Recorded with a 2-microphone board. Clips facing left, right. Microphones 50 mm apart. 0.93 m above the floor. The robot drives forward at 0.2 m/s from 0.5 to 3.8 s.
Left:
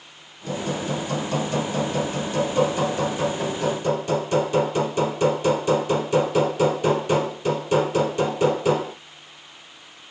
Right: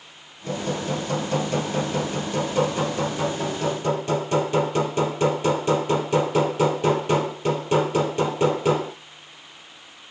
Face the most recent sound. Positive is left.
turn(degrees=-30)  # may be behind; listen again after turning